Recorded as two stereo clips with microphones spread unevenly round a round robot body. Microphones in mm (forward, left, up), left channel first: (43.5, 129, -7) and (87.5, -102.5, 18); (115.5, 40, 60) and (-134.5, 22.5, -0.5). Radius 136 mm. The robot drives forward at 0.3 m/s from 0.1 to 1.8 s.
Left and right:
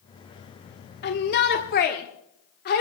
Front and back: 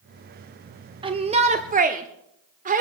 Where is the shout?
130° left, 1.0 m; by 2.8 s 140° left, 1.1 m.